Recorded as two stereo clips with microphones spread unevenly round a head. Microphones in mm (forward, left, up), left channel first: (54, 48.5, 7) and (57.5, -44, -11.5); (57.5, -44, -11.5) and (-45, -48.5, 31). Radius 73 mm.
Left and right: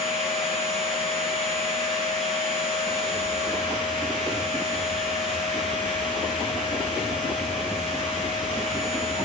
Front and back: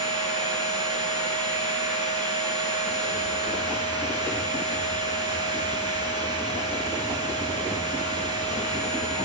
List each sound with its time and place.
0.0 s a machine running: 140° right, 4.5 m